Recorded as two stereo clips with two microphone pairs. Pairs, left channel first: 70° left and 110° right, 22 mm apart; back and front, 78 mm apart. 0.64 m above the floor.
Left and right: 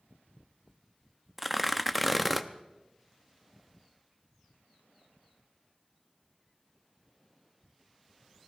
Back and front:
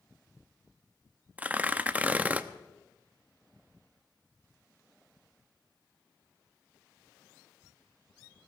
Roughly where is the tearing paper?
Ahead.